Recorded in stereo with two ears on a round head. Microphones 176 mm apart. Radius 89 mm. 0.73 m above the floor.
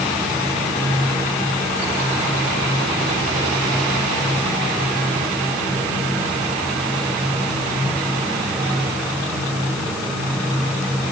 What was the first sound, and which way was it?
Only background noise.